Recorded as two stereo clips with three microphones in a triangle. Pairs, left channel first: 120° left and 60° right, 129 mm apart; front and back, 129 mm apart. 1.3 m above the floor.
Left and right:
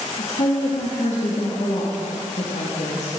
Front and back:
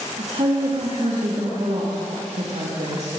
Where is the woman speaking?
150° left, 1.7 m.